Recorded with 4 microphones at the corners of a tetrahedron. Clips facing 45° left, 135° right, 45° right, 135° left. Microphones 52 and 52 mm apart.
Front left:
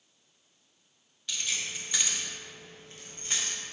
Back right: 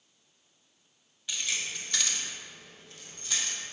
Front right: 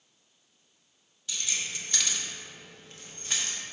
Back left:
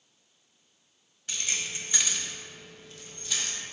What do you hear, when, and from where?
1.3 s keys jangling: 145° left, 1.2 m; by 3.6 s 5° right, 1.8 m